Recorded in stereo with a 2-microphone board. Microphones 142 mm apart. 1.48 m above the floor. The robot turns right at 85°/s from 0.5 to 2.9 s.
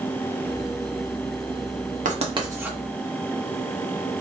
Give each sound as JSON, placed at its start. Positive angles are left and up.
{"t": 2.0, "sound": "writing", "side_deg": -65, "distance_m": 0.8}